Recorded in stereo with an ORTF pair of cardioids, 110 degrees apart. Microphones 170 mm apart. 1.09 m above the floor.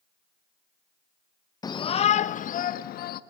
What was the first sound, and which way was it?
A shout, 25° left.